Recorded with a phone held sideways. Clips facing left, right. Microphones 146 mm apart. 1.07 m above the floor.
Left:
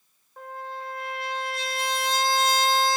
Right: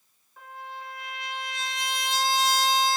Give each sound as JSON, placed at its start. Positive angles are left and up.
{"t": 0.4, "sound": "a trumpet", "side_deg": 60, "distance_m": 1.2}